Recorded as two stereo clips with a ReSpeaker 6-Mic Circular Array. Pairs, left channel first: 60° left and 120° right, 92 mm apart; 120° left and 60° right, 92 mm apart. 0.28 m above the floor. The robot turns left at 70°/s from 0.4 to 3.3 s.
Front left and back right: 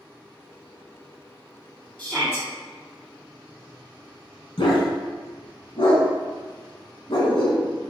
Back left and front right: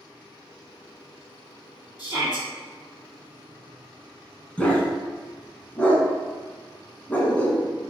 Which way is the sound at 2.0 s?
135° left.